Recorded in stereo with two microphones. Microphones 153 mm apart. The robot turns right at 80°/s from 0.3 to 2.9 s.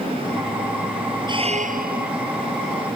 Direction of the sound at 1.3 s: 150° right.